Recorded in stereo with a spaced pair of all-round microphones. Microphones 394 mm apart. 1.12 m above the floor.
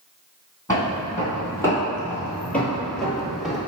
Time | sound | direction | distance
0.7 | footsteps | 10° left (ahead or behind) | 2.0 m